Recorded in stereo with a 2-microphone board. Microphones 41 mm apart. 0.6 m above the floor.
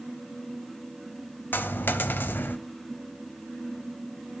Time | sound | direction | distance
1.5 | a dropped coin | 55° left (ahead or behind) | 0.5 m